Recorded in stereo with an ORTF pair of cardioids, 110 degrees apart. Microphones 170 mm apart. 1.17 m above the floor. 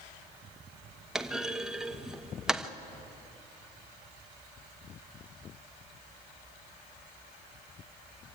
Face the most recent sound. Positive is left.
turn(degrees=-5)